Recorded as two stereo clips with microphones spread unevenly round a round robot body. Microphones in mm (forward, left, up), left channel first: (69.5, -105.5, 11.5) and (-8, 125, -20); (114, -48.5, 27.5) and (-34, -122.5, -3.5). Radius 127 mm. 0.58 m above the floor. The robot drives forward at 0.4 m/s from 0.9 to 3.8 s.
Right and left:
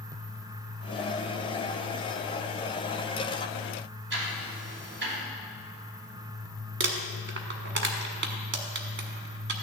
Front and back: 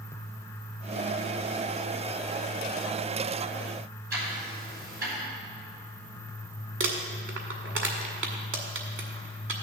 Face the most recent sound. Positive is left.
turn(degrees=160)